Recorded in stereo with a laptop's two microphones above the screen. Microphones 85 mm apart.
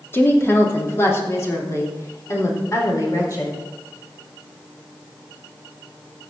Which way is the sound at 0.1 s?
25° left (ahead or behind).